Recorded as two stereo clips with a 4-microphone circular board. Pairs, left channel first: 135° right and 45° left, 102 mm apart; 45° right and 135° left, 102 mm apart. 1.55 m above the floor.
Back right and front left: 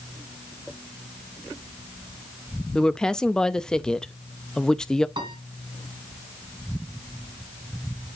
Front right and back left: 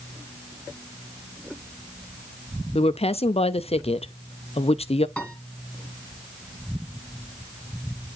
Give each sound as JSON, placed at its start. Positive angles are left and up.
{"t": 2.8, "sound": "a woman speaking", "azimuth_deg": -50, "distance_m": 0.5}
{"t": 5.2, "sound": "a piano", "azimuth_deg": 35, "distance_m": 2.0}